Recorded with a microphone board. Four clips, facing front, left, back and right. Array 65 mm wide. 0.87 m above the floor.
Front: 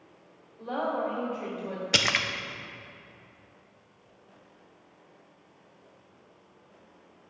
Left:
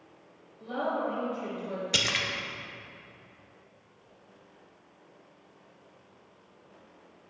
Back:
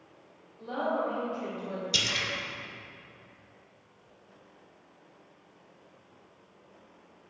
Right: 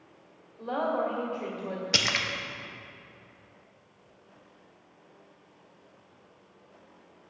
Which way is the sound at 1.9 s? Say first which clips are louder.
Right 2 dB, front 8 dB; 10° right.